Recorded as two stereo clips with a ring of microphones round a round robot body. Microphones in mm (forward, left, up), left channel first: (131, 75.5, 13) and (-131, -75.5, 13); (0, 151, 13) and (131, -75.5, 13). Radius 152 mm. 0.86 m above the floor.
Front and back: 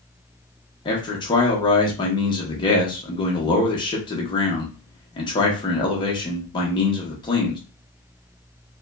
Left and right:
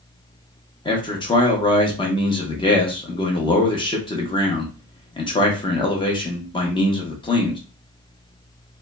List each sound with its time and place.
0.8 s a man speaking: 80° left, 0.7 m